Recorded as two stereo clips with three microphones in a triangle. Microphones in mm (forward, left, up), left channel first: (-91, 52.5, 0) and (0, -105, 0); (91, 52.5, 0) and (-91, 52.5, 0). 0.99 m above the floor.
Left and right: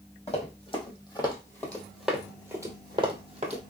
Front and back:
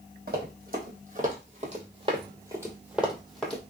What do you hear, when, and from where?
0.3 s running footsteps: 170° left, 1.7 m; by 3.6 s 80° right, 1.3 m